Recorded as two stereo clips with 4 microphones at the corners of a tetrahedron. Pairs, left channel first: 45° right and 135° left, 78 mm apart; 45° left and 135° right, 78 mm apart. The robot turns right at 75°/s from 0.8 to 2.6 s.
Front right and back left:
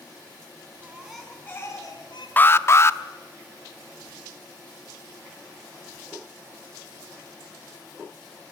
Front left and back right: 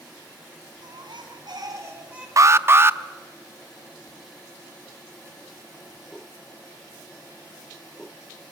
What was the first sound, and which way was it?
A baby crying, 160° right.